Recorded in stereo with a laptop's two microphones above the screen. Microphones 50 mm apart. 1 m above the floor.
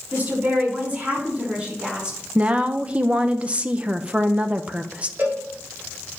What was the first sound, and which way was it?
A woman speaking, 35° right (ahead or behind).